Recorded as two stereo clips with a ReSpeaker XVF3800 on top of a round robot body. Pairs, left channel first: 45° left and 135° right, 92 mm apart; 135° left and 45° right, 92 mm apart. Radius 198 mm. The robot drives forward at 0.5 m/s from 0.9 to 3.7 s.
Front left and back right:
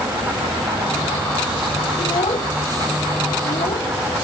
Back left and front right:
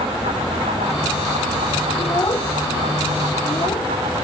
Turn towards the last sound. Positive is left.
turn(degrees=80)